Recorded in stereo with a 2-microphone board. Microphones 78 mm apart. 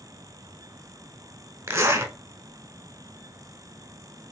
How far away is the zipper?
About 0.7 m.